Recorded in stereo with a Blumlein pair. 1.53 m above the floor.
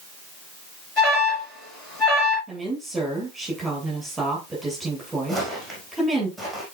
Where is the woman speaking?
5° right, 9 m.